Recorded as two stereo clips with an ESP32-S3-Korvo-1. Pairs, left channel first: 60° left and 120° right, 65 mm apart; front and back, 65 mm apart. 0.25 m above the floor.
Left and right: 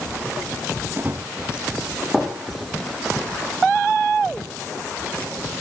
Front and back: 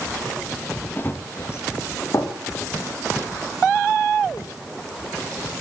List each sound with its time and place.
1.0 s running footsteps: 60° right, 2 m; by 4.5 s 15° right, 5.5 m